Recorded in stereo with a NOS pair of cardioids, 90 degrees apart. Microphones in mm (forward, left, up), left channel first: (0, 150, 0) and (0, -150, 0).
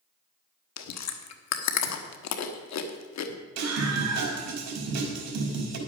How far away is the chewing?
About 1.3 m.